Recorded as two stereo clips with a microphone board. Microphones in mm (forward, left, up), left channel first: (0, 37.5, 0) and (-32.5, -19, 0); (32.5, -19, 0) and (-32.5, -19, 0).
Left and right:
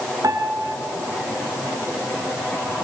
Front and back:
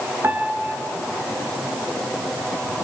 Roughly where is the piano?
Behind right.